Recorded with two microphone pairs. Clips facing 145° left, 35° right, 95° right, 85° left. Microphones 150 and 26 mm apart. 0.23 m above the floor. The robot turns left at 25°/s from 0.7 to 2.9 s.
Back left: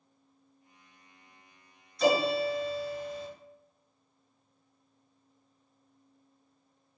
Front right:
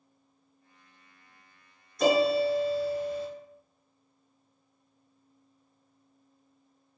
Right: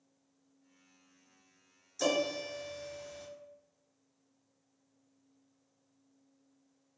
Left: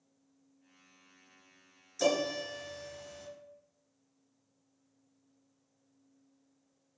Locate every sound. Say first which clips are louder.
2.0 s a piano: front right 3 dB, left 1 dB; straight ahead, 0.7 m; by 3.3 s 20° right, 0.7 m